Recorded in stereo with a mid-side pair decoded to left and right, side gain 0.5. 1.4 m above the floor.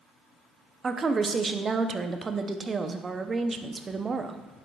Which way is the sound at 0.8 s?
35° right.